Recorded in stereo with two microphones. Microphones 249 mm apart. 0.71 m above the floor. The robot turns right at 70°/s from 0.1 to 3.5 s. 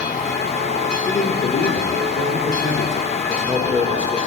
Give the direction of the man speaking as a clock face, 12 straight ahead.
12 o'clock.